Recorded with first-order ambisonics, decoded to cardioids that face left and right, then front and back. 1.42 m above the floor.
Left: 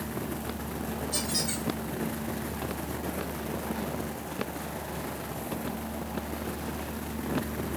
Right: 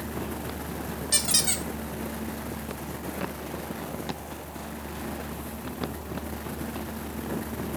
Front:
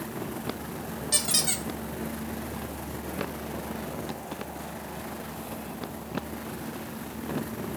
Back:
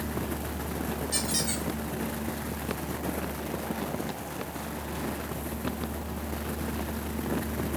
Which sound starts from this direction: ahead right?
A squeak, at 1.1 s.